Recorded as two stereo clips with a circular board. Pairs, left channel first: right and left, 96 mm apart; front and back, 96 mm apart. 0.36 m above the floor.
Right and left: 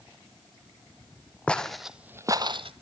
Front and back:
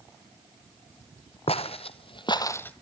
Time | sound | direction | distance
1.5 | footsteps | 10° right | 1.4 m